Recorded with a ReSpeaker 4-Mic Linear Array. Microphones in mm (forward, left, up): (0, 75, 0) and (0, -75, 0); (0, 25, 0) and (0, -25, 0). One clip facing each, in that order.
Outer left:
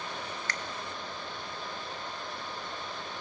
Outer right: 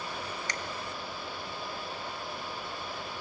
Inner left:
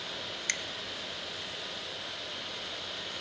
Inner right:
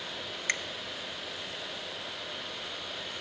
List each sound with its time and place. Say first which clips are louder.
0.5 s a finger snap: outer right 1 dB, inner right 4 dB; 20° right (ahead or behind), 0.6 m